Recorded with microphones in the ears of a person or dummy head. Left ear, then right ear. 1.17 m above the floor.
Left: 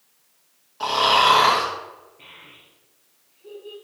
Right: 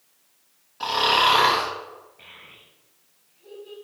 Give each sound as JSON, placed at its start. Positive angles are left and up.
{"t": 0.8, "sound": "snoring", "side_deg": 5, "distance_m": 2.5}
{"t": 2.2, "sound": "a child speaking", "side_deg": -75, "distance_m": 4.5}